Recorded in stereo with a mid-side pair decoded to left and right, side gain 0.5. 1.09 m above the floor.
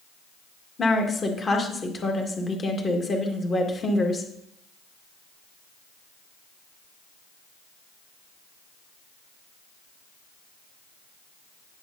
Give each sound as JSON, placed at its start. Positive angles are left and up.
{"t": 0.8, "sound": "a woman speaking", "azimuth_deg": 35, "distance_m": 1.7}